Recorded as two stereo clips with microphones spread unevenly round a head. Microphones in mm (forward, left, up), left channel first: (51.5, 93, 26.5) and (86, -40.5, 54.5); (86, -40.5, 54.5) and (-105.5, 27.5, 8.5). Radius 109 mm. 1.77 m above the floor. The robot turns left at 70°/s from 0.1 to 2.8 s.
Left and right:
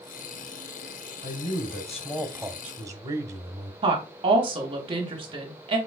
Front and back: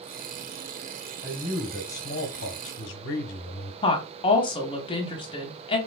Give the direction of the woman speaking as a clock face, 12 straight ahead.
2 o'clock.